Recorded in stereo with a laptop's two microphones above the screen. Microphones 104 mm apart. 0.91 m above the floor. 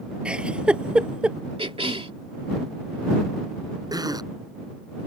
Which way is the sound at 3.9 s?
40° right (ahead or behind).